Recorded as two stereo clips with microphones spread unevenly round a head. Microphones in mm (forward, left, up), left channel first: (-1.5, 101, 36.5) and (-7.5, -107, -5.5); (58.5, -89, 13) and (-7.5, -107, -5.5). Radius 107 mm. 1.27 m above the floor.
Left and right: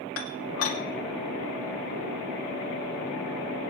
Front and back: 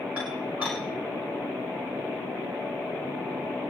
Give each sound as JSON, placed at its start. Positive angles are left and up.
{"t": 0.2, "sound": "dishes clattering", "azimuth_deg": 110, "distance_m": 3.0}